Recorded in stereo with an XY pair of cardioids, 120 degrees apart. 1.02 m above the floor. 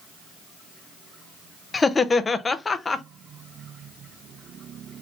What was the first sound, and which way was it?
Laughter, 25° left.